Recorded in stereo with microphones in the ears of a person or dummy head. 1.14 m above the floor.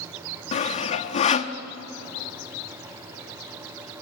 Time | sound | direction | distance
0.5 | sawing | 35° left (ahead or behind) | 0.9 m